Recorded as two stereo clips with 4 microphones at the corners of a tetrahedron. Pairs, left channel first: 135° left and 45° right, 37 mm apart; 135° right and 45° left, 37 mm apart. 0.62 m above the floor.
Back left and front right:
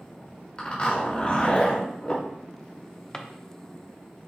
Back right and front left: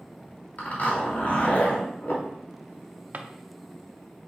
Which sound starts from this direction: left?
A drawer, at 3.1 s.